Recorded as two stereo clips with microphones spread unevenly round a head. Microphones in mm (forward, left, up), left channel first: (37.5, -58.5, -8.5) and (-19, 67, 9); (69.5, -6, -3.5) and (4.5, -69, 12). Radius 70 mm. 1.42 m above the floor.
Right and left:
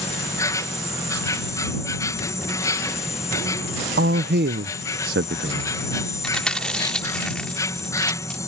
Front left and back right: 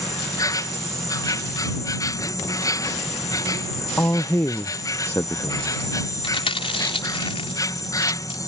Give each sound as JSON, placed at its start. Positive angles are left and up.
{"t": 0.0, "sound": "an insect", "azimuth_deg": 0}
{"t": 4.0, "sound": "a man speaking", "azimuth_deg": 115}
{"t": 6.2, "sound": "chewing", "azimuth_deg": 20}